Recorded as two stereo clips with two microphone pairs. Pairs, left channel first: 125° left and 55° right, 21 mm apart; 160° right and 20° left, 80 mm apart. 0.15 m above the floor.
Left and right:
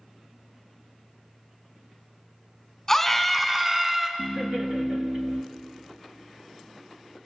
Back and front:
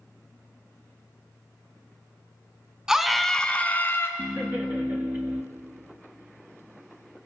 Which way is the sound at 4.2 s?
45° right.